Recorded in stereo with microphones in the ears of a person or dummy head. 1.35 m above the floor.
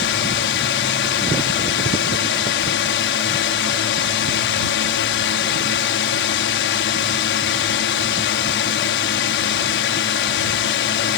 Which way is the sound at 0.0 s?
55° left (ahead or behind).